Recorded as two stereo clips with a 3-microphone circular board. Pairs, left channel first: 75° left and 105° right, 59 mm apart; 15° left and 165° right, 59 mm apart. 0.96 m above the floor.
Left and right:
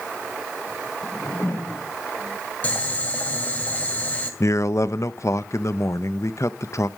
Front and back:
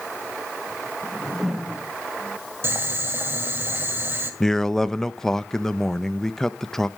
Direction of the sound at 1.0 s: 110° left.